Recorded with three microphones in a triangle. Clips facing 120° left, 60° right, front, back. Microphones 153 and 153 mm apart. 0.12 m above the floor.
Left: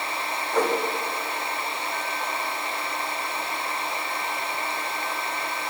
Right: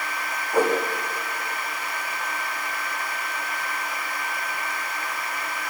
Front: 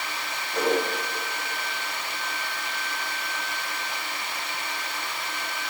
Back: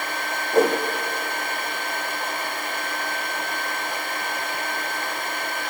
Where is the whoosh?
140° right, 4.5 m.